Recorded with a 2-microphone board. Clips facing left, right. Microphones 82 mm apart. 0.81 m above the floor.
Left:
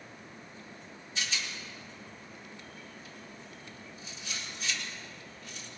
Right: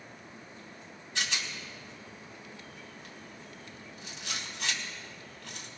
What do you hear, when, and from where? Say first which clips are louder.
1.1 s a rattle: right 2 dB; 80° right, 2.0 m